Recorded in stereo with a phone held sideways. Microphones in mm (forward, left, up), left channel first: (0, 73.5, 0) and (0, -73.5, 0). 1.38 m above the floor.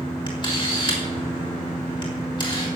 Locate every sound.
0.3 s a camera shutter: 35° left (ahead or behind), 5 m